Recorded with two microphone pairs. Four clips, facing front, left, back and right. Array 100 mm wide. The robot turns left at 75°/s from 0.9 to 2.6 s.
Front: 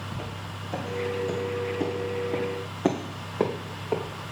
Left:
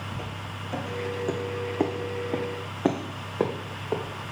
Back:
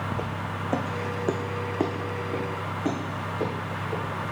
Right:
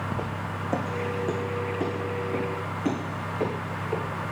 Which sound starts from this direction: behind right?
Footsteps, at 0.1 s.